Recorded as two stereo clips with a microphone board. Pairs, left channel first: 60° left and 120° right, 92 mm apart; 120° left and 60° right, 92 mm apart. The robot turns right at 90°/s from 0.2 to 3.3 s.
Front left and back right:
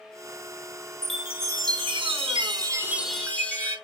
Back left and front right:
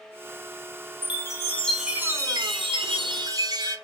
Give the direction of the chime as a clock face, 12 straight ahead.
7 o'clock.